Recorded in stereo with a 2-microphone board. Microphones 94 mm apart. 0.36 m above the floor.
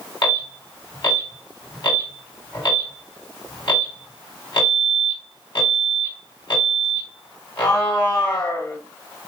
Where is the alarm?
60° left (ahead or behind), 4 m.